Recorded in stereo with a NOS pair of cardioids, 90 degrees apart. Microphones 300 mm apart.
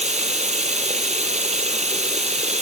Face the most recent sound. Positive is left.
turn(degrees=-20)